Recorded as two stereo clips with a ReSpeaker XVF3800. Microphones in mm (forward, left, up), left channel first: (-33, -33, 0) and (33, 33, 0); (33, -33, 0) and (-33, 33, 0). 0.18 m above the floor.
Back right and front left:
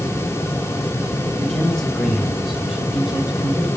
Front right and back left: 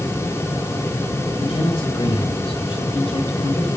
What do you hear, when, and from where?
1.4 s a man speaking: 50° right, 5.5 m; by 3.7 s 35° right, 6.5 m